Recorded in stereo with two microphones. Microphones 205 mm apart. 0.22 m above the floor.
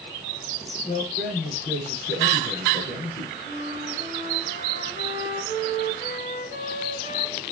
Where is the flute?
55° left (ahead or behind), 3 m.